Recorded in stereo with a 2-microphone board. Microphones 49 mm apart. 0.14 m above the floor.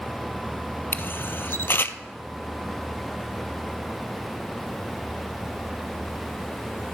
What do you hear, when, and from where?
0.9 s a camera shutter: 50° left (ahead or behind), 0.5 m